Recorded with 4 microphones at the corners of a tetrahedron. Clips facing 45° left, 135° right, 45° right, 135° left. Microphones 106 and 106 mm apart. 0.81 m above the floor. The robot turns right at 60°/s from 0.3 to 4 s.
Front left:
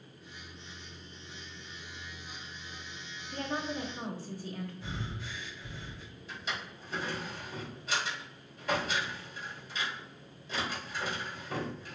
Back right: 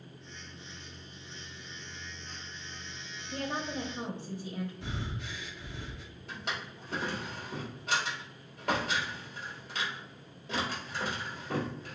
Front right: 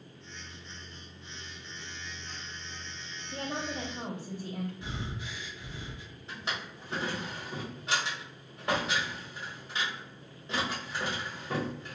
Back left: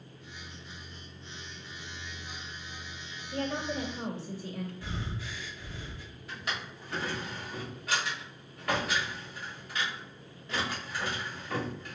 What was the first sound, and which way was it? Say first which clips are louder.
A woman speaking: even, back left 3 dB; 110° right.